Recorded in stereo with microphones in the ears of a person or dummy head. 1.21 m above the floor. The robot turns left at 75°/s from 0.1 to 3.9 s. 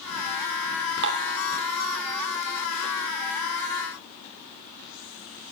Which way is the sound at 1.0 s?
65° right (ahead or behind).